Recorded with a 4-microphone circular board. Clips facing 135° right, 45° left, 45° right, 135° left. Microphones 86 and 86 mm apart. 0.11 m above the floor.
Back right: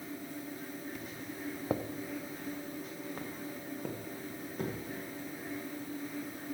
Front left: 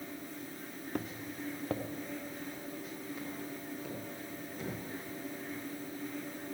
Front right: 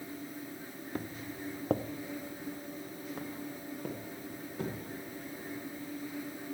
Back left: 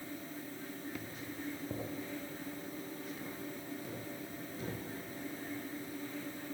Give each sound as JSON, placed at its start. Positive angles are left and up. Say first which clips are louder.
{"t": 0.9, "sound": "footsteps", "louder": "front left 3 dB, front right 4 dB", "azimuth_deg": 5, "distance_m": 0.5}